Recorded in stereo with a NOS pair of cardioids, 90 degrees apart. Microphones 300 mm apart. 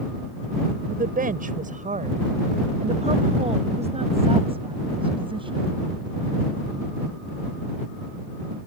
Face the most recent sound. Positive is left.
turn(degrees=-15)